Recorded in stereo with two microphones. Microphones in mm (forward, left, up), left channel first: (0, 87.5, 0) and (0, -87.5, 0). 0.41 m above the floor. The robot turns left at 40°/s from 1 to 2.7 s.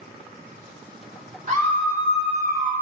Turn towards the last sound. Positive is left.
turn(degrees=-110)